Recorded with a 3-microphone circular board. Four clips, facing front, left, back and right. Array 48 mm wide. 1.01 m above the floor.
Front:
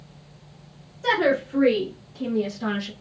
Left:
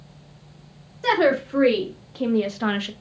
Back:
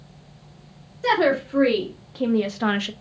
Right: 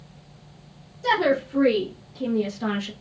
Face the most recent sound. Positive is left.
turn(degrees=160)